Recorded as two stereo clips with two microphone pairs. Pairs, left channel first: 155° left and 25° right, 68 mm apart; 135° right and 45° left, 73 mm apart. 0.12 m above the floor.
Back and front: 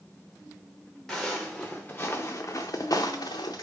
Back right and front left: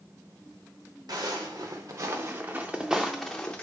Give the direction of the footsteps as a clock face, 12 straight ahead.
10 o'clock.